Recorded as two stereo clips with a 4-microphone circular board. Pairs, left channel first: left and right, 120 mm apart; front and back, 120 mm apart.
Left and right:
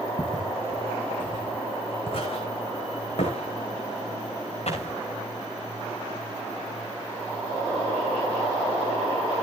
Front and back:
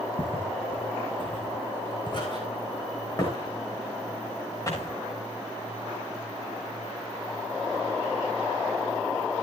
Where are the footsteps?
35° left, 5.5 m; by 4.9 s 65° left, 8.5 m.